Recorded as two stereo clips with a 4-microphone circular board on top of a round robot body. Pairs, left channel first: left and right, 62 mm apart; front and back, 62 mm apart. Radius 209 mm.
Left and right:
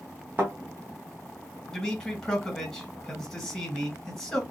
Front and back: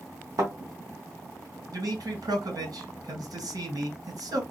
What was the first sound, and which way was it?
A thud, 150° right.